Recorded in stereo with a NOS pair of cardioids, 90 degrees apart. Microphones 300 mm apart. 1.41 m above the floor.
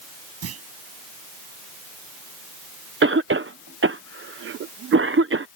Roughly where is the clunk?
Ahead right.